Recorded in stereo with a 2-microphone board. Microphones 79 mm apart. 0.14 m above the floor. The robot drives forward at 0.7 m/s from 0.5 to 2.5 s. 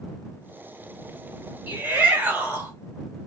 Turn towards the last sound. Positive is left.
turn(degrees=-20)  # may be behind; listen again after turning